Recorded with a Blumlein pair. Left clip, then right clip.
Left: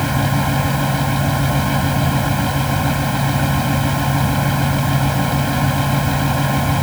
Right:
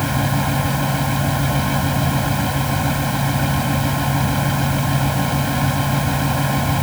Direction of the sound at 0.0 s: 5° left.